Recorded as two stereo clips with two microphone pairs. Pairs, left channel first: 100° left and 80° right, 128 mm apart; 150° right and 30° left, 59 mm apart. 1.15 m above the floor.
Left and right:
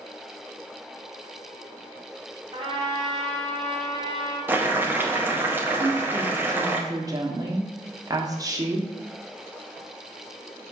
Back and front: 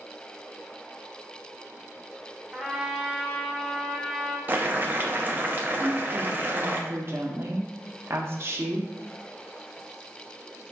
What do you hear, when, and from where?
2.5 s a trumpet: 50° right, 1.3 m
4.5 s boiling: 10° right, 0.6 m
5.8 s a woman speaking: 15° right, 0.8 m